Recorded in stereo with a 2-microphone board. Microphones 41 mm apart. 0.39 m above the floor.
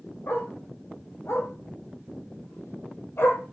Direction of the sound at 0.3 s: 75° left (ahead or behind).